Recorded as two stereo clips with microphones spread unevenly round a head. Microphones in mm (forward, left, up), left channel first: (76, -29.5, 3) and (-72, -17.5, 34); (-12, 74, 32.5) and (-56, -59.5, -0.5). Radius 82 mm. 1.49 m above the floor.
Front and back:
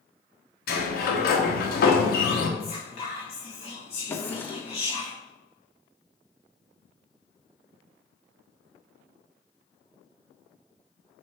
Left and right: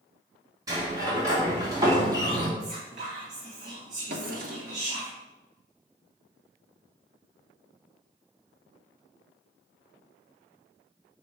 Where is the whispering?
60° right, 1.6 m.